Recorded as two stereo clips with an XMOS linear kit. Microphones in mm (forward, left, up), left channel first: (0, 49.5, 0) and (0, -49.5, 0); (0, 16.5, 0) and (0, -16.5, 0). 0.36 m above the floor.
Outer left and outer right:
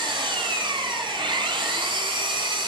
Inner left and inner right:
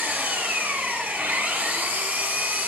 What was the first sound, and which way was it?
An engine running, 55° right (ahead or behind).